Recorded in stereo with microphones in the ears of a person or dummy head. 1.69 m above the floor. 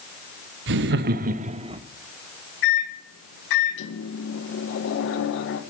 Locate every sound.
0.7 s laughter: 70° right (ahead or behind), 0.8 m; by 1.8 s 25° right (ahead or behind), 0.9 m
2.6 s a microwave: 75° left (ahead or behind), 1.6 m